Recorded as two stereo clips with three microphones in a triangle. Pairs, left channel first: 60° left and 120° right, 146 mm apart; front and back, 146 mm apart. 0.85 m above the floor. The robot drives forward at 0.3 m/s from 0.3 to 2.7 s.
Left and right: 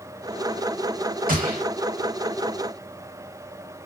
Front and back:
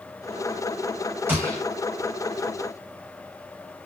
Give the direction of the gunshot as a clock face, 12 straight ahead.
4 o'clock.